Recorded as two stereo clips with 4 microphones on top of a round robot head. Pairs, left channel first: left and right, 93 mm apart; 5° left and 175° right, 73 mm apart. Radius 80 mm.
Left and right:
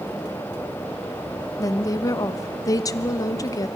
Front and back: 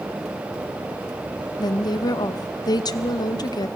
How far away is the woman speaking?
About 0.9 m.